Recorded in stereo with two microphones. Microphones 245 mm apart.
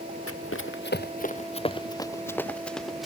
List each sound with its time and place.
0.3 s running footsteps: 65° left (ahead or behind); by 3.1 s centre (ahead or behind)